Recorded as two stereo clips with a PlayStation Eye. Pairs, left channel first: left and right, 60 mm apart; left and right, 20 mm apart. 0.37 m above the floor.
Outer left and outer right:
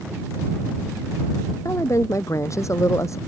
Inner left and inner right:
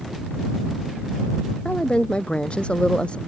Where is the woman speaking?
55° left (ahead or behind).